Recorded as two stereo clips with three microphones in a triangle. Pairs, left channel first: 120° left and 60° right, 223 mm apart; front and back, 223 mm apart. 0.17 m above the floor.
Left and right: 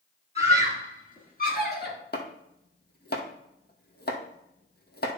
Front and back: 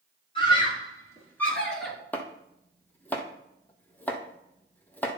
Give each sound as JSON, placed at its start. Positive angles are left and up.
{"t": 0.3, "sound": "a scream", "azimuth_deg": 65, "distance_m": 3.5}
{"t": 2.1, "sound": "chopping", "azimuth_deg": 80, "distance_m": 1.2}